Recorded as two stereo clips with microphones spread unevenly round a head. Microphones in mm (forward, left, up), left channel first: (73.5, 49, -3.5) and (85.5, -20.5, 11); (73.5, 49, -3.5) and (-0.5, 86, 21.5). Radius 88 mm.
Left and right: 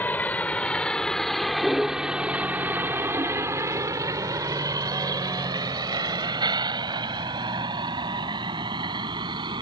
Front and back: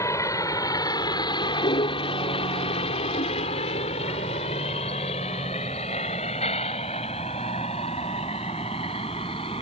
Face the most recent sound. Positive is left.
turn(degrees=-90)